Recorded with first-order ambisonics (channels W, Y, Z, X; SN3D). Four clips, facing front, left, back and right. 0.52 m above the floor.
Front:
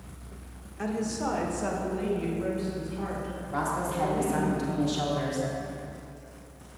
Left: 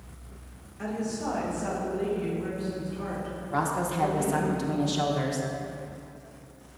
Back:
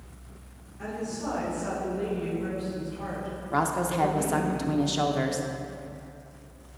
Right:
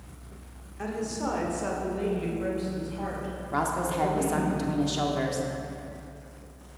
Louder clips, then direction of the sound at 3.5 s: Even, back 4 dB; 170° right.